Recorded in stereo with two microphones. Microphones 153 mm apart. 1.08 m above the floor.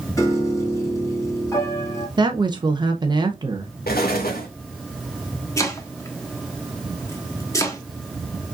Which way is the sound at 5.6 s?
20° left (ahead or behind).